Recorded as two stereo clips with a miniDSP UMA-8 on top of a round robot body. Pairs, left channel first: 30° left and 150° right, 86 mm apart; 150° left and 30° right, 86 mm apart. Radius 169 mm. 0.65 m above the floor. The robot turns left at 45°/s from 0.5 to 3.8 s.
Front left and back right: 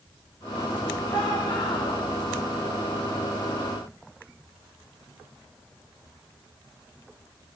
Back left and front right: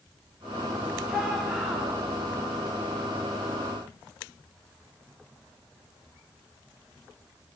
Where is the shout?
55° left, 4.5 m; by 2.0 s 15° left, 4.5 m.